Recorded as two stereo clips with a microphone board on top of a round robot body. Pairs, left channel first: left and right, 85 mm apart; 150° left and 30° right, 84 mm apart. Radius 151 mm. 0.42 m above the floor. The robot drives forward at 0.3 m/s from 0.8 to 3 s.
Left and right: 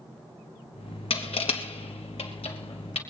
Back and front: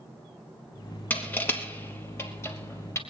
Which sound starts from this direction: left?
Crushing, at 1.1 s.